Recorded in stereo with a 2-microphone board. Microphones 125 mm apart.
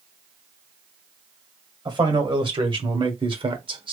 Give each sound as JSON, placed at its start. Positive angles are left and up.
{"t": 1.9, "sound": "a man speaking", "side_deg": -40, "distance_m": 2.0}